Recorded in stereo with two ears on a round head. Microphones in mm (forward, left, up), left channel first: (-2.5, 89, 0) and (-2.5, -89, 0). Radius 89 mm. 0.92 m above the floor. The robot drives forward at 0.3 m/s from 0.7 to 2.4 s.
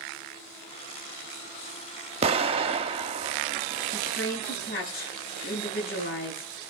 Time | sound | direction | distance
2.2 | an explosion | 30° right (ahead or behind) | 0.9 m
3.9 | a woman speaking | 50° left (ahead or behind) | 10 m